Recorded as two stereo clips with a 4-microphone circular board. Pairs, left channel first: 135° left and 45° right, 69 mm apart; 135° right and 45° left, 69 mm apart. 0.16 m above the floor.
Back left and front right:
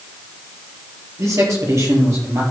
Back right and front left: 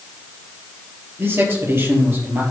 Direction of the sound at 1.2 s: 5° right.